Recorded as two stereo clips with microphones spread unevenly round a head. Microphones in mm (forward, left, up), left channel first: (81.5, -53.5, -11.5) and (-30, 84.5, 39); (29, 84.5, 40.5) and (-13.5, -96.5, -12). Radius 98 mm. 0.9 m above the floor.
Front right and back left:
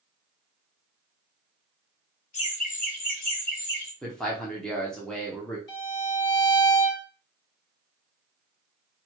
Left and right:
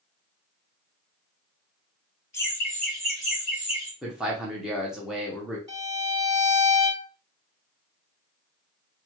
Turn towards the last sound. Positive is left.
turn(degrees=-35)